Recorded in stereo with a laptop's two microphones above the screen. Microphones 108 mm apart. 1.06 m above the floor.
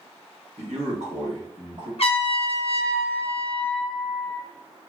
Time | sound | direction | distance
0.6 | a man speaking | 80° right | 0.8 m
2.0 | a trumpet | 65° left (ahead or behind) | 0.5 m